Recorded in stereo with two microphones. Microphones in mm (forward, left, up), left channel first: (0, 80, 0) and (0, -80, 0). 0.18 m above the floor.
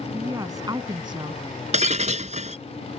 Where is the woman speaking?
25° right (ahead or behind); by 1.4 s 35° right (ahead or behind).